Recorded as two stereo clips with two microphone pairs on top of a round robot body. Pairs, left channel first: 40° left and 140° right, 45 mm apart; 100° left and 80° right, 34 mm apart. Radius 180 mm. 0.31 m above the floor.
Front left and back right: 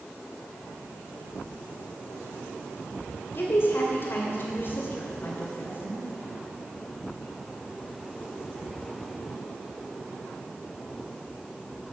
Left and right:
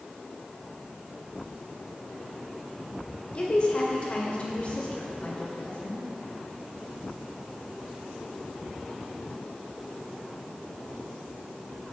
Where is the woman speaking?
55° left, 2 m.